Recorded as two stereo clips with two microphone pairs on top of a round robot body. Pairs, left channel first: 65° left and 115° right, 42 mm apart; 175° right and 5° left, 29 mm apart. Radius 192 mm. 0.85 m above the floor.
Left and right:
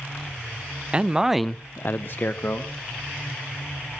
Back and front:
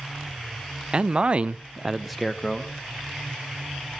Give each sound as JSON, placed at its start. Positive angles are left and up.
{"t": 0.9, "sound": "a man speaking", "azimuth_deg": -45, "distance_m": 0.9}